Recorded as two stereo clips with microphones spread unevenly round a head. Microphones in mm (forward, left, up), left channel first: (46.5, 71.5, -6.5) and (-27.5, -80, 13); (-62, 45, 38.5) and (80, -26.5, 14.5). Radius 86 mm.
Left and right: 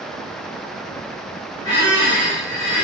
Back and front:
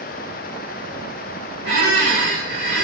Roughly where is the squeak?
Ahead left.